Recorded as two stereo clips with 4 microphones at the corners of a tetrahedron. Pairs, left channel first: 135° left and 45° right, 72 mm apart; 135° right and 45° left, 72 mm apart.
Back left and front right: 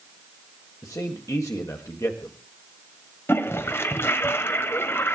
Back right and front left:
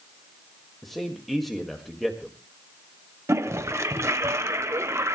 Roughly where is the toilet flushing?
Left.